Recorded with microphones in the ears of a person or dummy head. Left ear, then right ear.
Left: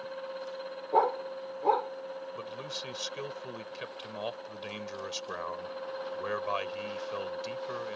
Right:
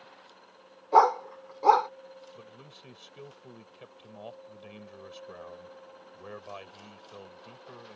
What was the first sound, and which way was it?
A dog barking, 40° right (ahead or behind).